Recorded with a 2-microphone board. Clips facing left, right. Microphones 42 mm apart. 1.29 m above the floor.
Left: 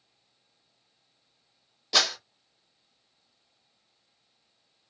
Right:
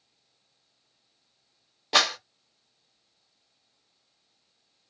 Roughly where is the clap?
Right.